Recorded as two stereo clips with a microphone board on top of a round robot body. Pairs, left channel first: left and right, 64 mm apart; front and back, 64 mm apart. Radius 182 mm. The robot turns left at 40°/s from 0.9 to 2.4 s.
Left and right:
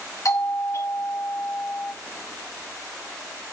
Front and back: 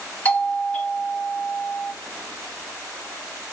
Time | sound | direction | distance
0.2 | a doorbell | 70° left | 1.7 m